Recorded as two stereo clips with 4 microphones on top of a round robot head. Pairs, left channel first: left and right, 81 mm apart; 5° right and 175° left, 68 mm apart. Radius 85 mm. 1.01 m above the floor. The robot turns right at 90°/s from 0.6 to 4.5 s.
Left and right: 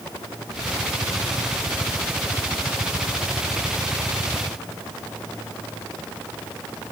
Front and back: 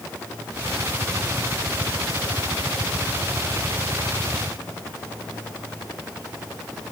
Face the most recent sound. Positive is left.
No sound to turn to.